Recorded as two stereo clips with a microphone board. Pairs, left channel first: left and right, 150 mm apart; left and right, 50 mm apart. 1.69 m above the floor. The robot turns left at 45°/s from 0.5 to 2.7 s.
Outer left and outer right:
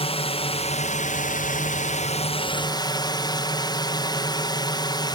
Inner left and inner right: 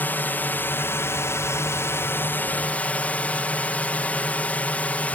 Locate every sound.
0.0 s a drone: 130° left; by 5.2 s 30° left